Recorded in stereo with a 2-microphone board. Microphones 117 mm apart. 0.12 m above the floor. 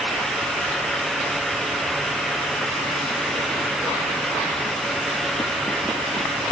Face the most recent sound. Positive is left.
No sound to turn to.